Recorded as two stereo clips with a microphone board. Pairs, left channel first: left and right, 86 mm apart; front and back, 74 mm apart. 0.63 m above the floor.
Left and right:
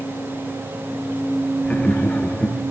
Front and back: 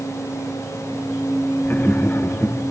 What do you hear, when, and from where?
1.6 s laughter: 30° left, 1.0 m